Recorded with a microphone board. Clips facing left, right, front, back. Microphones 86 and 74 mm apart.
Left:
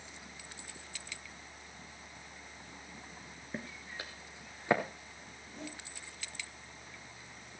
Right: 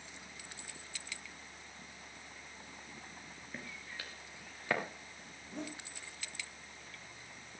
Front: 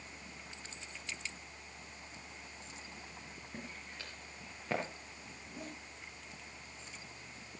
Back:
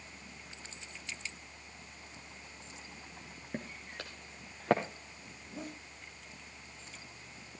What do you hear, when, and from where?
3.5 s footsteps: 150° left, 2.5 m; by 4.8 s 160° left, 4 m
5.4 s a zipper: 115° right, 7 m